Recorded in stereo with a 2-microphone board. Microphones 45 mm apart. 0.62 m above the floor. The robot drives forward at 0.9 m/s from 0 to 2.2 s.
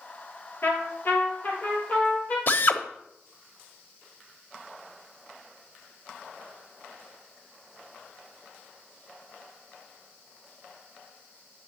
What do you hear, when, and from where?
0.6 s a trumpet: 50° left (ahead or behind), 2.5 m; by 2.4 s 35° left (ahead or behind), 3.5 m
2.5 s a drill: 50° left (ahead or behind), 0.9 m